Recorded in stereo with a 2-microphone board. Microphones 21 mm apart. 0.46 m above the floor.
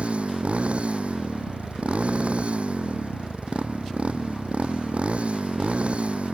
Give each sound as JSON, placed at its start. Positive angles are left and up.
{"t": 0.0, "sound": "a motorcycle", "side_deg": -75}